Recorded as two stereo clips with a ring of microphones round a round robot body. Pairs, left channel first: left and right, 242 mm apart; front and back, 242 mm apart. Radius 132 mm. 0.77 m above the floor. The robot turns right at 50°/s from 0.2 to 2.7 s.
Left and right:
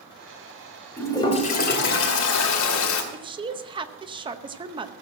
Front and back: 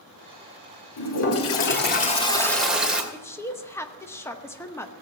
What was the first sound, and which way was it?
A toilet flushing, 5° left.